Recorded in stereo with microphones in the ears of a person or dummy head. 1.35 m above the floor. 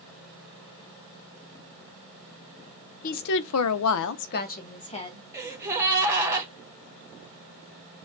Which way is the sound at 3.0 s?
45° left (ahead or behind).